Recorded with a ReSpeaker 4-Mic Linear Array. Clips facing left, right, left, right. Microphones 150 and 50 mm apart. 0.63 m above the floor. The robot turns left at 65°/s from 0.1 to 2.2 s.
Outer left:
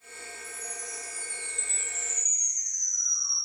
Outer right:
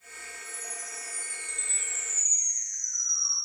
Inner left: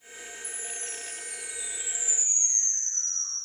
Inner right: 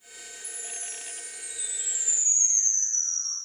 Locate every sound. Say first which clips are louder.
0.4 s a chime: outer left 1 dB, inner left 3 dB; 130° left, 5.5 m; by 3.4 s 15° left, 5.5 m